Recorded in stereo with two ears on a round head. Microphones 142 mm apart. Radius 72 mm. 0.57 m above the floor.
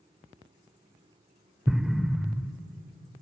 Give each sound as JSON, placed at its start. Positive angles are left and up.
{"t": 1.7, "sound": "an explosion", "side_deg": -5, "distance_m": 0.6}